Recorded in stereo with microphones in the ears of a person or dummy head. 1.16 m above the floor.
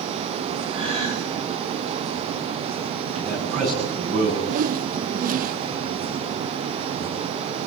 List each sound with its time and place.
0.7 s a gasp: 25° right (ahead or behind), 4.5 m
3.1 s a man speaking: 40° right (ahead or behind), 9 m
4.5 s a whoosh: 50° right (ahead or behind), 0.6 m